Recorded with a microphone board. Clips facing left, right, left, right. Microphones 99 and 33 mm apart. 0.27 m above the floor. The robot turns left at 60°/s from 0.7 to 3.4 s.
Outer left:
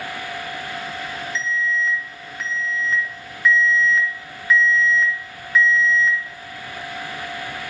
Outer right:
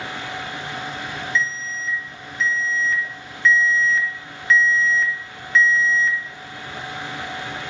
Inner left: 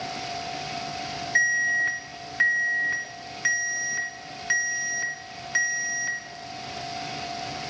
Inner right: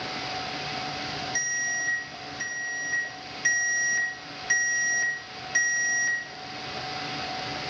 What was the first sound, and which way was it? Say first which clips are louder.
An alarm: outer left 4 dB, inner left 9 dB; 135° left.